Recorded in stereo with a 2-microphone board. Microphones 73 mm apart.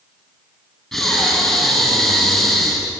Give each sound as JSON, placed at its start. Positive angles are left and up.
{"t": 0.9, "sound": "breathing", "side_deg": 5, "distance_m": 4.0}